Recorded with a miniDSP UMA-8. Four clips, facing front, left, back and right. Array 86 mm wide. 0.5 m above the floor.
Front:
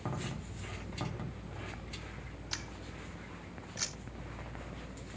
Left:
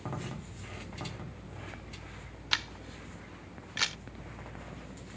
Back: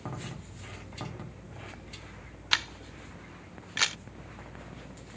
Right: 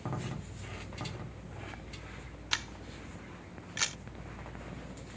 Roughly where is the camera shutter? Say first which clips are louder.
Left 2 dB, back 13 dB; behind.